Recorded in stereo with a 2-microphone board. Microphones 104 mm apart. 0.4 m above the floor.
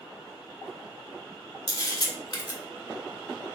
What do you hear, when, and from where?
1.7 s a camera shutter: 50° left (ahead or behind), 0.8 m